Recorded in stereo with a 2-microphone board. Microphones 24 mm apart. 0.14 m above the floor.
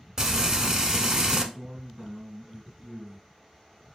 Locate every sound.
0.2 s frying: 20° right (ahead or behind), 0.7 m
1.5 s a man speaking: 20° right (ahead or behind), 1.5 m